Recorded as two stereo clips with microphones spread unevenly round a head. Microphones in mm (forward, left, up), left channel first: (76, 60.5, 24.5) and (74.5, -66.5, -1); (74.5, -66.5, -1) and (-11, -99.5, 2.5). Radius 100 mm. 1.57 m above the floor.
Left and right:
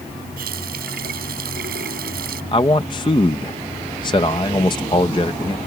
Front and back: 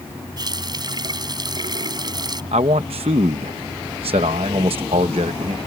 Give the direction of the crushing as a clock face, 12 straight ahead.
No crushing in this recording.